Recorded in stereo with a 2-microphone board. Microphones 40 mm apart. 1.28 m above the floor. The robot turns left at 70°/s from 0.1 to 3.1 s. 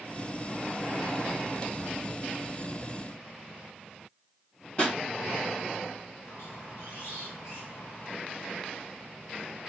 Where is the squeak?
85° left, 1.8 m.